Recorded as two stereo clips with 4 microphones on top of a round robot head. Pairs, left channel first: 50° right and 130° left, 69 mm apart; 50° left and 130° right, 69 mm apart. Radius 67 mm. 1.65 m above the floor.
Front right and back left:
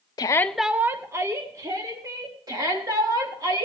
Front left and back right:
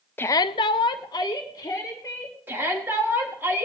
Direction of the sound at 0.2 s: 15° right.